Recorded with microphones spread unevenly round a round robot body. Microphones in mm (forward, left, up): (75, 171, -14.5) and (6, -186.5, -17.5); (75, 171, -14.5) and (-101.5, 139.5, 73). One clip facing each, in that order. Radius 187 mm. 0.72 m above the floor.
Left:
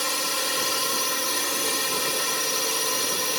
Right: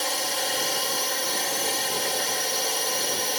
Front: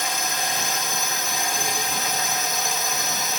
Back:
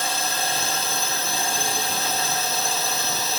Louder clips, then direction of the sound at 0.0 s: Right 1 dB, back 1 dB; 125° left.